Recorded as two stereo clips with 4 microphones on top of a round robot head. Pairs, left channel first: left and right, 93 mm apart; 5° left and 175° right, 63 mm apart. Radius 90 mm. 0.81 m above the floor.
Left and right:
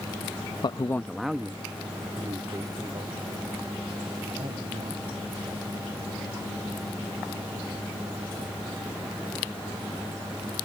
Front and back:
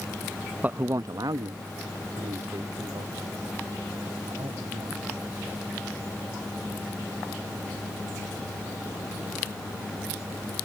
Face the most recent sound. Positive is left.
turn(degrees=-140)